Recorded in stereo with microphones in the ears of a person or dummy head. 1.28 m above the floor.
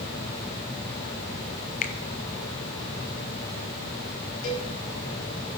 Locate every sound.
1.8 s a finger snap: 40° left (ahead or behind), 0.7 m
4.4 s a cowbell: 45° left (ahead or behind), 7 m